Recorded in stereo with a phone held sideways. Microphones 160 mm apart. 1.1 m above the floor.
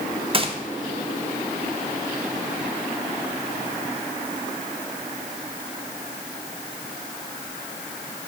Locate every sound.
0.3 s a gunshot: 35° right (ahead or behind), 0.9 m